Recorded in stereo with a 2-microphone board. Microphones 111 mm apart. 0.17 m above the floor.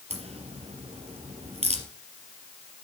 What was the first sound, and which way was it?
A crack, 70° right (ahead or behind).